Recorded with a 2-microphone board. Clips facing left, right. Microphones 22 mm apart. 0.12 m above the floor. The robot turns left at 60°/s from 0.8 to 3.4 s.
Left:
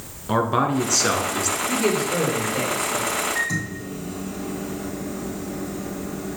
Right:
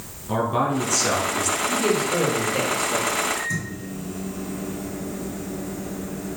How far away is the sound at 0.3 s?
About 1.1 m.